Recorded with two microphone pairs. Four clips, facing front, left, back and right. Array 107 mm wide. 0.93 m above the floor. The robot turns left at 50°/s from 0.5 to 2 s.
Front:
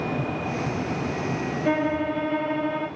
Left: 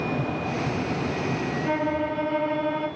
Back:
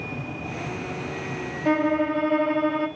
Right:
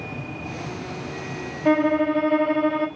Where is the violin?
95° right, 0.7 m; by 2.9 s 115° right, 0.7 m.